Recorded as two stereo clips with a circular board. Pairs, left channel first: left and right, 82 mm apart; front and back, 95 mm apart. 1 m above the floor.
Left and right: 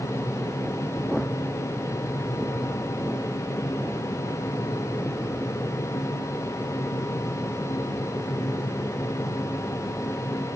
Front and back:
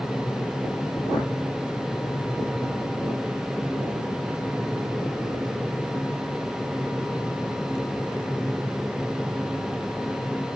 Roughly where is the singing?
No singing in this recording.